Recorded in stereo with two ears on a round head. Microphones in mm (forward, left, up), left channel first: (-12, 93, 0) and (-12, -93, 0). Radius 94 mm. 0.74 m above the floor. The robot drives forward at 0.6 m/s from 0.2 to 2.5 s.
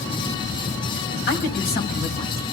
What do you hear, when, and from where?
1.3 s a woman speaking: 50° left (ahead or behind), 5 m; by 2.4 s 45° left (ahead or behind), 5.5 m